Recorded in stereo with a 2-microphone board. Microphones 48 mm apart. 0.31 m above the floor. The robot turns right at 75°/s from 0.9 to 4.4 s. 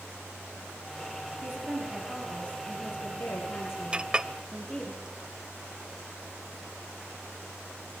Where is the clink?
25° right (ahead or behind), 0.6 m; by 4.3 s 20° right (ahead or behind), 0.6 m.